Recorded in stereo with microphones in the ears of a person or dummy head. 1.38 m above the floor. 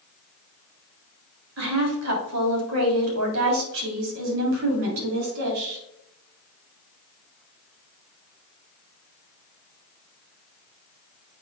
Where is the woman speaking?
85° right, 3 m; by 5.8 s 50° right (ahead or behind), 4 m.